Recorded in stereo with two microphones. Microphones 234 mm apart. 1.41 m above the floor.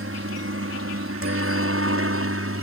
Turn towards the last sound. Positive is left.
turn(degrees=-70)  # may be behind; listen again after turning